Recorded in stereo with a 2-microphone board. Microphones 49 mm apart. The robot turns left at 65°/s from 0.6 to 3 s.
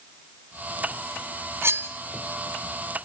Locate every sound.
1.6 s cutlery clinking: 55° right (ahead or behind), 1.1 m